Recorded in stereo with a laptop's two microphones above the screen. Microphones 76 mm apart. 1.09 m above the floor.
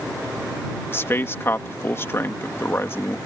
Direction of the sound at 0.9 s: 30° left (ahead or behind).